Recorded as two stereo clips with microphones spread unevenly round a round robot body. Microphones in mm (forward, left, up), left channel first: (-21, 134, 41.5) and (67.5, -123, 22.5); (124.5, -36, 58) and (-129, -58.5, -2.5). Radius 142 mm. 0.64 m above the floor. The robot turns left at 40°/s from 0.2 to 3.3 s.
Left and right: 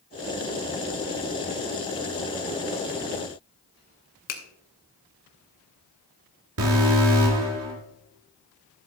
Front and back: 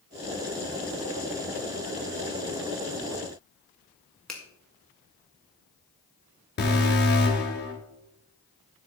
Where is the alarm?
50° right, 3.5 m.